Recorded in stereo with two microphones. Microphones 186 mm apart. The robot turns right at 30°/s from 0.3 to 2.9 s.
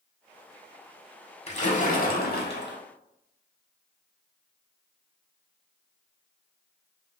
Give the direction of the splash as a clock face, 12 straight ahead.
11 o'clock.